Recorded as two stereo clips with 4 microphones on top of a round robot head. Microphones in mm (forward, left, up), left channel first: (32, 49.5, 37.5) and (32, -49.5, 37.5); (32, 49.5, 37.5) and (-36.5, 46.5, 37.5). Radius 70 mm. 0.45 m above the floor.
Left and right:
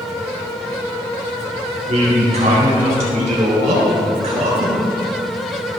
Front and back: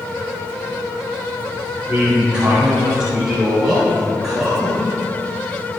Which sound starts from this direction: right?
A man speaking, at 1.9 s.